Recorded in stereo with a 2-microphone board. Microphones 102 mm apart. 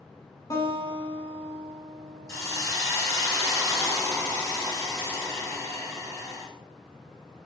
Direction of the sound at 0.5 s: 35° left (ahead or behind).